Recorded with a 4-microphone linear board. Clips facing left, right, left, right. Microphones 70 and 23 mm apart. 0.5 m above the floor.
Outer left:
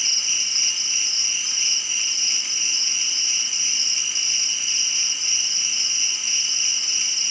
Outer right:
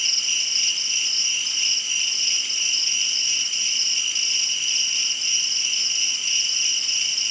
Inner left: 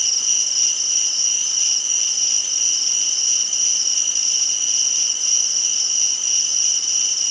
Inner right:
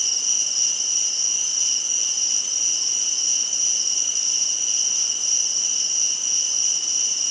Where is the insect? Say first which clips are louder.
Outer right 2 dB, inner left 3 dB; 20° left (ahead or behind), 2 m.